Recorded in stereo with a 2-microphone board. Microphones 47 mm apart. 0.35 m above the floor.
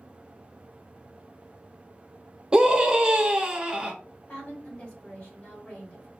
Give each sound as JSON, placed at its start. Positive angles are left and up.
{"t": 2.5, "sound": "a scream", "side_deg": -20, "distance_m": 0.8}
{"t": 4.3, "sound": "a woman speaking", "side_deg": 30, "distance_m": 1.6}